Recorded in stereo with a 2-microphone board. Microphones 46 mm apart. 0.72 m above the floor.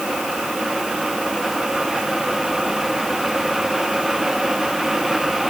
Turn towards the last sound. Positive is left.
No sound to turn to.